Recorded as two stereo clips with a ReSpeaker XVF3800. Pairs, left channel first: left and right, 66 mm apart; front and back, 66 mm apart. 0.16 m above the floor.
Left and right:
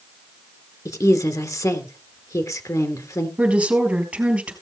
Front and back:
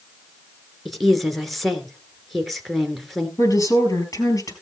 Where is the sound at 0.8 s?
90° left, 1.8 m.